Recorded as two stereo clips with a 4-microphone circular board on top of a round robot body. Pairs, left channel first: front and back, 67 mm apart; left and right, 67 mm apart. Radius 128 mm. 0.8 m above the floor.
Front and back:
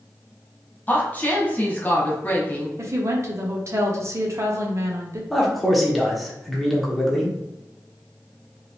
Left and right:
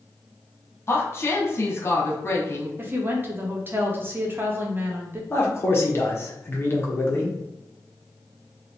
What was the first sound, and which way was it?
A woman speaking, 55° left.